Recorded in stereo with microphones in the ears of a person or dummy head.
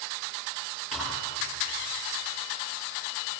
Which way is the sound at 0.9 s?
Centre (ahead or behind).